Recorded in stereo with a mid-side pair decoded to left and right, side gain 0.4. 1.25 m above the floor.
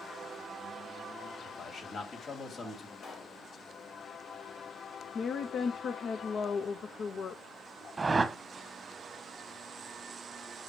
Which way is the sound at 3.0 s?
60° left.